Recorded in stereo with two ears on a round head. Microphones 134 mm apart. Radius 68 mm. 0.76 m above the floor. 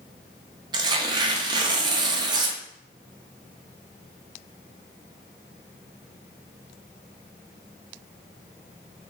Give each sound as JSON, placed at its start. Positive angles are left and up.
{"t": 0.7, "sound": "tearing paper", "side_deg": -30, "distance_m": 0.5}